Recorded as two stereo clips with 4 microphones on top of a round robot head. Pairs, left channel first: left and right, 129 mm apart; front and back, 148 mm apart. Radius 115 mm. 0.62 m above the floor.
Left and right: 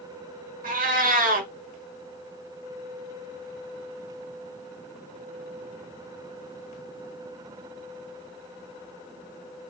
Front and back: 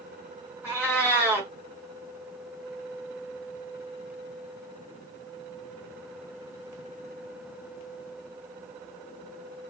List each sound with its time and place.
0.6 s a cat meowing: 100° right, 0.9 m